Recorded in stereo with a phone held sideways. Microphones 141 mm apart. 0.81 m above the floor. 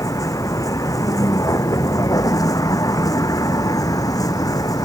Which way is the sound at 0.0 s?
25° left (ahead or behind).